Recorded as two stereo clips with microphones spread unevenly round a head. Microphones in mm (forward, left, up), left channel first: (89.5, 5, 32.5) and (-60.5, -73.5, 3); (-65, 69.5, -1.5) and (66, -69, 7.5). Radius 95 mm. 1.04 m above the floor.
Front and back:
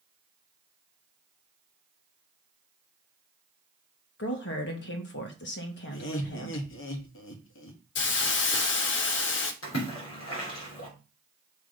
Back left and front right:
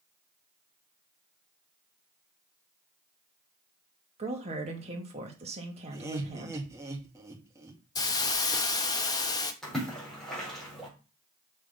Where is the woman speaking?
10° left, 2.0 m.